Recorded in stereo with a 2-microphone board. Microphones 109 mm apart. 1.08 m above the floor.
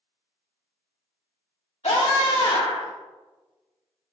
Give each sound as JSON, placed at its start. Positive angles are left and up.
{"t": 1.8, "sound": "a scream", "side_deg": 75, "distance_m": 2.5}